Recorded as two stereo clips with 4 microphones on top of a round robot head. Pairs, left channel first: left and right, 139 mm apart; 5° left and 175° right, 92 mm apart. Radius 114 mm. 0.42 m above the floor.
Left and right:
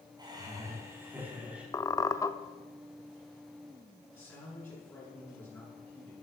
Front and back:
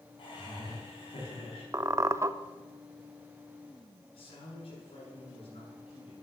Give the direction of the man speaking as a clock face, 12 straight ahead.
12 o'clock.